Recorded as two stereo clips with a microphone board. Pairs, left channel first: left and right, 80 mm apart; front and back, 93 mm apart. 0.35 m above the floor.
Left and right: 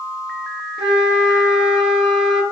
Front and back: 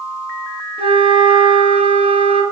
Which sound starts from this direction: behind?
A flute, at 0.8 s.